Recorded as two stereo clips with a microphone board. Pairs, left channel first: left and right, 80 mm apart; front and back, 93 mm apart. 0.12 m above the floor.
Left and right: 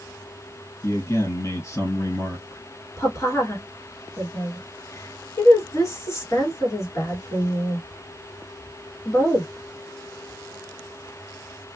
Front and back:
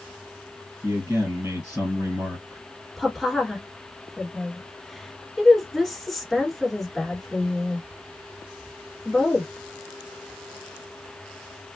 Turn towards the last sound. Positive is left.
turn(degrees=90)